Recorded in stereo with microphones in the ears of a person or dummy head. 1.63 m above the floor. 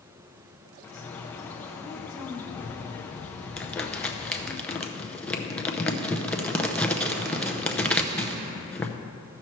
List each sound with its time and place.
0.8 s a bird: 10° left (ahead or behind), 0.6 m
3.6 s crumpling: 10° left (ahead or behind), 0.6 m